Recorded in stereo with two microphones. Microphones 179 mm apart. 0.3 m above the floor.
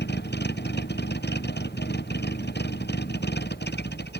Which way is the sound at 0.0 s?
70° left (ahead or behind).